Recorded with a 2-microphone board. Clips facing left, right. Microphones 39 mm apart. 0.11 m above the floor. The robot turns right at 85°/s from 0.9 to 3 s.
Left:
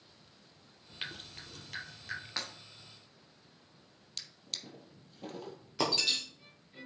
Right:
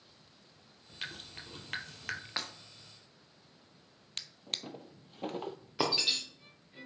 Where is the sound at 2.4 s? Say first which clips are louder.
Right 1 dB; 15° right (ahead or behind), 2.5 m; by 2.5 s 25° right (ahead or behind), 2.5 m.